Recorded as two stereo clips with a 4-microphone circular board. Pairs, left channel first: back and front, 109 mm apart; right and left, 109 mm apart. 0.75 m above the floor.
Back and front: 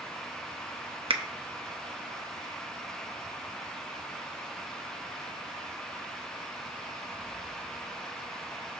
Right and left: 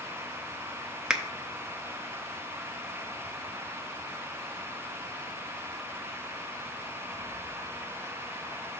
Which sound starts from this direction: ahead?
A finger snap, at 1.1 s.